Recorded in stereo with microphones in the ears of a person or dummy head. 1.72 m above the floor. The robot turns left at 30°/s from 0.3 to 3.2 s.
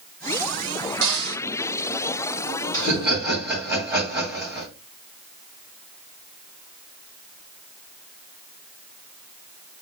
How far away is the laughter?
About 3.5 m.